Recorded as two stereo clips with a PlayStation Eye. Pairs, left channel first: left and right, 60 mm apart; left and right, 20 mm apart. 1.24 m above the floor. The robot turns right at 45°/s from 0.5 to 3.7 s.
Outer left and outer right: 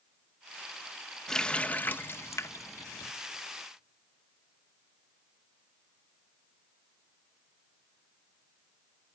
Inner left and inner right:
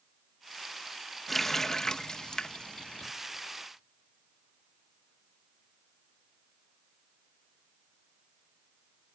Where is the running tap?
5° left (ahead or behind), 0.8 m; by 3.1 s 75° left (ahead or behind), 0.8 m.